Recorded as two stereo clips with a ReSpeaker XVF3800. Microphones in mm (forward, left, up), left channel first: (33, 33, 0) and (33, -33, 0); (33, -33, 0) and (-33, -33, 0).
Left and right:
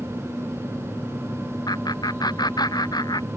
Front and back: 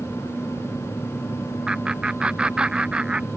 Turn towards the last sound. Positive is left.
turn(degrees=100)